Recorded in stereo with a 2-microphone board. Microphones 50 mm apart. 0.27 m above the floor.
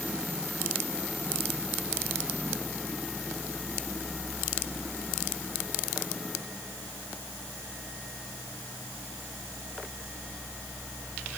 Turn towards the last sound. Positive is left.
No sound to turn to.